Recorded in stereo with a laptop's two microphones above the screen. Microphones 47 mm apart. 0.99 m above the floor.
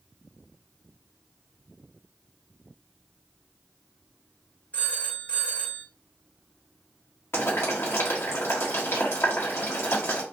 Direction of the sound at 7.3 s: 65° left (ahead or behind).